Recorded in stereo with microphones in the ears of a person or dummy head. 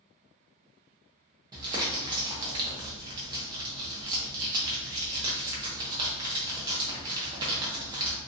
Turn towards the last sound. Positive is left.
turn(degrees=-25)  # may be behind; listen again after turning